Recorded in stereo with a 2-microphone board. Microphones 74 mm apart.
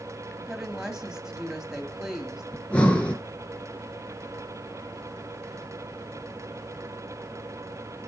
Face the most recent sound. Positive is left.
turn(degrees=15)  # may be behind; listen again after turning